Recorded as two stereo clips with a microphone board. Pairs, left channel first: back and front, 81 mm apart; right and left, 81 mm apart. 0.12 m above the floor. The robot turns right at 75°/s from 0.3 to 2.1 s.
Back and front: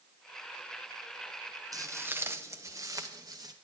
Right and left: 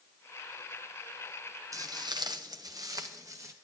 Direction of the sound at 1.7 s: 45° left.